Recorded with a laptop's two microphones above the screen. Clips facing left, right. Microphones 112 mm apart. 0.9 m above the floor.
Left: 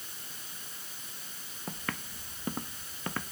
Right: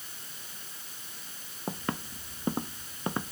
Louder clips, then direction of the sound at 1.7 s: Right 5 dB; 25° right (ahead or behind).